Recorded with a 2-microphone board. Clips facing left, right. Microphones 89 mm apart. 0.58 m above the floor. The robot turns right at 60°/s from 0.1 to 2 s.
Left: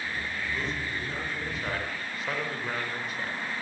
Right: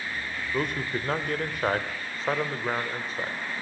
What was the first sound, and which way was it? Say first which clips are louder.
A man speaking: right 4 dB; 125° right.